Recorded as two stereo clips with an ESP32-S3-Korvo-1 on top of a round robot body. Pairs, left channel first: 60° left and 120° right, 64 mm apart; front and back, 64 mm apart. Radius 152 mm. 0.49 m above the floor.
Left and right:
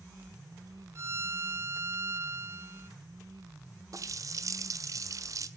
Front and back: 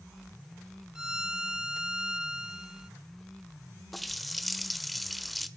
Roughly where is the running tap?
Right.